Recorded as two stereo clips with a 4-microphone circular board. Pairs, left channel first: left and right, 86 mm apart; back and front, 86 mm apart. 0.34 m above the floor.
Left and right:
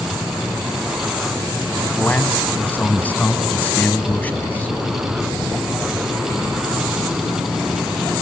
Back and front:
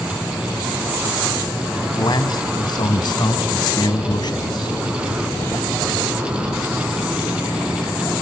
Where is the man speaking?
160° left, 2.5 m.